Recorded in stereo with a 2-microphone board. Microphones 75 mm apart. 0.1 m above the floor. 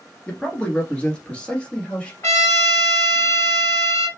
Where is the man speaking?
15° left (ahead or behind), 1.2 m; by 2.1 s 10° left (ahead or behind), 1.8 m.